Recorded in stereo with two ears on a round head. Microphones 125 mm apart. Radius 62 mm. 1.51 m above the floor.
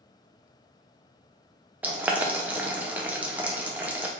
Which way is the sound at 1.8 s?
10° right (ahead or behind).